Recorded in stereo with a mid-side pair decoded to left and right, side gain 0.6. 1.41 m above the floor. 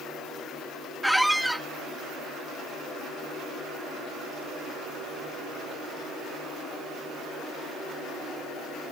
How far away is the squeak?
About 1.0 m.